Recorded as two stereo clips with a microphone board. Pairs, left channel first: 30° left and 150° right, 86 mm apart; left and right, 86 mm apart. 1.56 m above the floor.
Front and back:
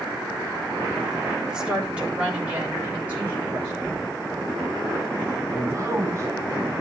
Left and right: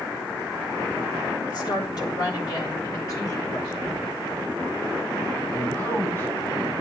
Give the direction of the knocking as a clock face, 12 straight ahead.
7 o'clock.